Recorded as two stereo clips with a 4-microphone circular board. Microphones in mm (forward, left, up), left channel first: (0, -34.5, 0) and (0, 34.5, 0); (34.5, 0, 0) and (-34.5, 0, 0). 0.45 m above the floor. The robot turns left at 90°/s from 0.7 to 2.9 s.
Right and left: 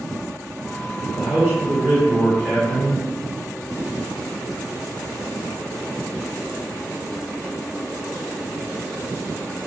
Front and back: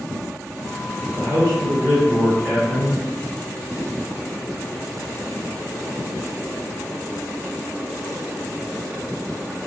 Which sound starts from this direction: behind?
A man speaking, at 1.1 s.